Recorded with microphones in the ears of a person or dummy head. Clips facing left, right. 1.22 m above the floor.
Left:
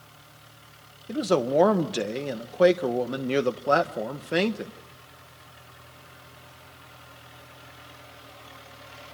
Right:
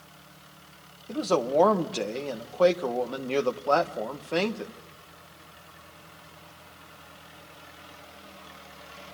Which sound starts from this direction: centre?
A man speaking, at 1.1 s.